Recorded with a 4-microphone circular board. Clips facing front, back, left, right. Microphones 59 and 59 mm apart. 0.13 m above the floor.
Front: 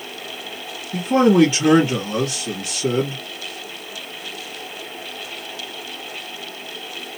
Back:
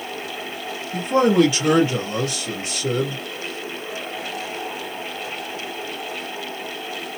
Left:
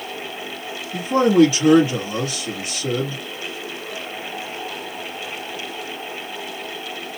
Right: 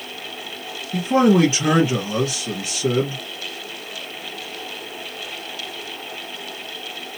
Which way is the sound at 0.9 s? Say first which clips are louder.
Front 2 dB, left 1 dB; 45° right.